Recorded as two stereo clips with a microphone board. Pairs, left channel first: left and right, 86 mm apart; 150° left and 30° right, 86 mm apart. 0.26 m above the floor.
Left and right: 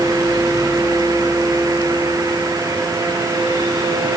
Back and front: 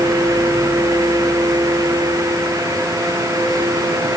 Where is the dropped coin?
I don't hear a dropped coin.